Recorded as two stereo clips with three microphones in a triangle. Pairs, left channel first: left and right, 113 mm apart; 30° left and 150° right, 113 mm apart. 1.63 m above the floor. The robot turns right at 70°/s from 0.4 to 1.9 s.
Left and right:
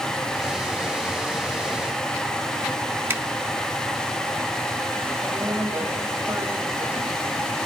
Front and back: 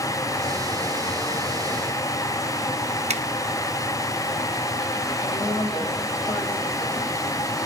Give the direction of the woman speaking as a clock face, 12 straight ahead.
1 o'clock.